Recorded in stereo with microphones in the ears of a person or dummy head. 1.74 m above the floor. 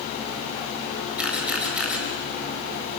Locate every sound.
1.2 s a camera shutter: 10° right (ahead or behind), 4.5 m